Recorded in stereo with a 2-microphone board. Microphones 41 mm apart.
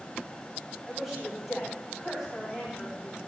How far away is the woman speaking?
About 6.5 m.